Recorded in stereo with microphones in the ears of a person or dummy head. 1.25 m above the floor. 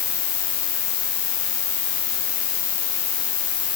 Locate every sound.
0.0 s an insect: 50° left (ahead or behind)